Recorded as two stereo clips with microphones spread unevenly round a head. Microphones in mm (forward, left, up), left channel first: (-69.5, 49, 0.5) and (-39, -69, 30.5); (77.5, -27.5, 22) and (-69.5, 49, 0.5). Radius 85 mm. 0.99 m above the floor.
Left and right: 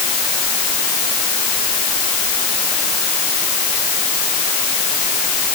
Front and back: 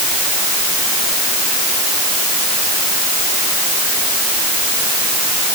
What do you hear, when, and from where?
Only background noise.